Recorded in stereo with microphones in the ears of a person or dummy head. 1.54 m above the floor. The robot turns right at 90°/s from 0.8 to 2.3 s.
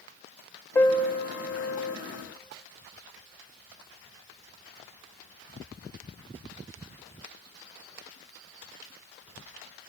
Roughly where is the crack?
No crack in this recording.